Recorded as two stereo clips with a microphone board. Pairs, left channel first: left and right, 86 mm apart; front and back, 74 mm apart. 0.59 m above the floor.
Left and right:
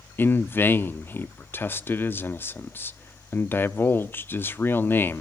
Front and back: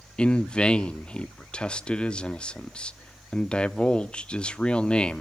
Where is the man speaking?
60° left, 0.6 m.